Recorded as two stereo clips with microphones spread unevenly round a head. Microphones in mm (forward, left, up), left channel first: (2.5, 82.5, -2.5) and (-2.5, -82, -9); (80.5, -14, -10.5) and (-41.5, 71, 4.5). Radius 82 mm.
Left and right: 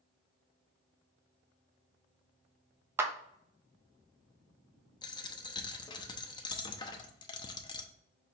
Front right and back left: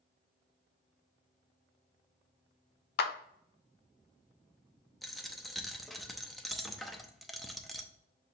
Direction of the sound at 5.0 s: 65° left.